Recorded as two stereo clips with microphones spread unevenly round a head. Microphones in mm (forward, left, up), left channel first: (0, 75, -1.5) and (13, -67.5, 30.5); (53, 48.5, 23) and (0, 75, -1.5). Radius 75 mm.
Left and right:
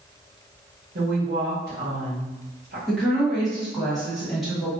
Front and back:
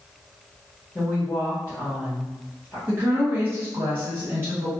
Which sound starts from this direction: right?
A woman speaking, at 0.9 s.